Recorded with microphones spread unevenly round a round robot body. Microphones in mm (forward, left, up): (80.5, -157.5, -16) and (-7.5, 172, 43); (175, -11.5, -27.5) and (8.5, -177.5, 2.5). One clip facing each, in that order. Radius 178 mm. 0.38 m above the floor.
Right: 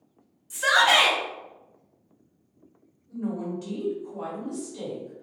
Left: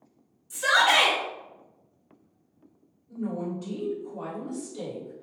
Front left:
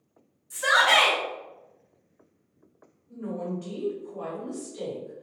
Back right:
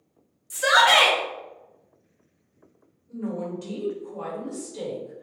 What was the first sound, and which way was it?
A shout, 140° right.